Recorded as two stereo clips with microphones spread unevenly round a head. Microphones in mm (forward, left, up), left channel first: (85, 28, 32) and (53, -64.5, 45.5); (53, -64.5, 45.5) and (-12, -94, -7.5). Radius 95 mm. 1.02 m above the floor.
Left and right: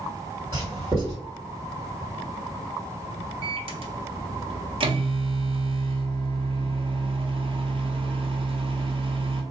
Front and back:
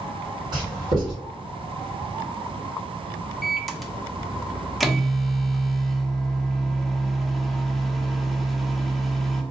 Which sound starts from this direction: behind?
Writing, at 0.5 s.